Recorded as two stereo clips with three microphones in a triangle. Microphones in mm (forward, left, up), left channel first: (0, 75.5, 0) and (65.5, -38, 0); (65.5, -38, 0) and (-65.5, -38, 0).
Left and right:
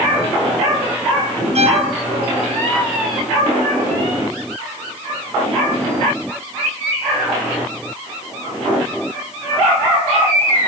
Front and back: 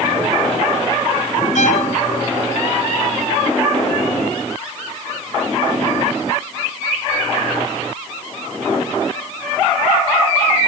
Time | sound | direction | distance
1.6 | a violin | 25° right | 1.6 m